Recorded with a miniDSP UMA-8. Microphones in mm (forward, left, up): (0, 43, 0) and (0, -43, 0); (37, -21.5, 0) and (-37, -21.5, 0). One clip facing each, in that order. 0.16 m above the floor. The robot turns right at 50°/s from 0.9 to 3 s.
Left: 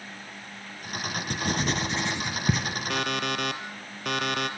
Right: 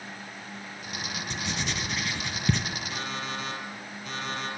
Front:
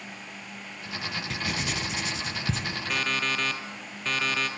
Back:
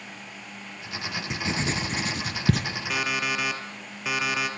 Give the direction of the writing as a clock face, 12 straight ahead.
8 o'clock.